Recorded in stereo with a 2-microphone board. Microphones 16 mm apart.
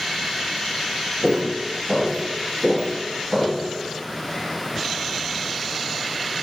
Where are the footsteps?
30° left (ahead or behind), 1.3 m.